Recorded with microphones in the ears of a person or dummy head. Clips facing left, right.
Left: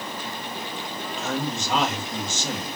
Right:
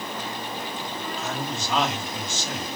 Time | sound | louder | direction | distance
1.2 | a man speaking | left 5 dB | 40° left (ahead or behind) | 1.1 m